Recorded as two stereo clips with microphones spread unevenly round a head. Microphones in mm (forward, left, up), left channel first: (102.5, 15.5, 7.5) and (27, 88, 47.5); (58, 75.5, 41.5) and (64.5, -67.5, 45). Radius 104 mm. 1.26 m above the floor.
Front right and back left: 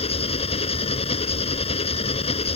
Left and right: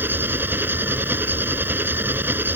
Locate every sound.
0.0 s an engine running: 10° right